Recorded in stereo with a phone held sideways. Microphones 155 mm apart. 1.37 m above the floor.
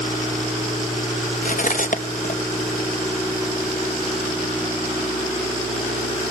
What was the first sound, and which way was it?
Cutlery clinking, 60° left (ahead or behind).